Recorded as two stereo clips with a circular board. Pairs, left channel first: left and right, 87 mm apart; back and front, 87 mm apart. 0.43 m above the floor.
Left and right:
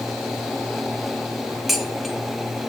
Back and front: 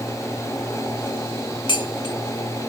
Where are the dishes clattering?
Straight behind, 1.1 m.